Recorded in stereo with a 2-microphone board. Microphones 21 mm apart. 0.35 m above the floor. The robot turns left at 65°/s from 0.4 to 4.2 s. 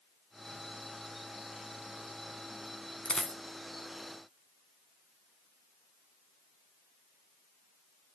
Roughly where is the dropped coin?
Left.